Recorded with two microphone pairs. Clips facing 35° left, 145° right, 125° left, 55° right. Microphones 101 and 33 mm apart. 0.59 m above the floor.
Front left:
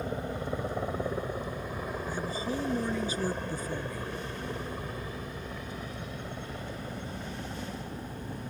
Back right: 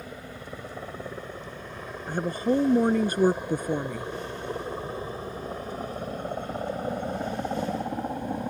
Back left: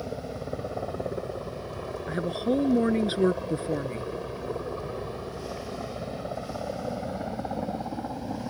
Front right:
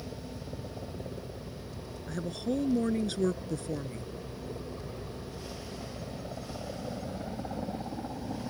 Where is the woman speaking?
175° right.